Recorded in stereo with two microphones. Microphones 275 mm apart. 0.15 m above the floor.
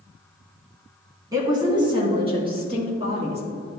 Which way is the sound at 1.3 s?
15° right (ahead or behind).